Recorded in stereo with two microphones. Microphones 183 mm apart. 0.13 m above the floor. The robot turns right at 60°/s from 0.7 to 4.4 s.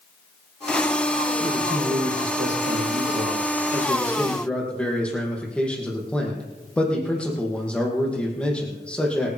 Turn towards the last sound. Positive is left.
turn(degrees=5)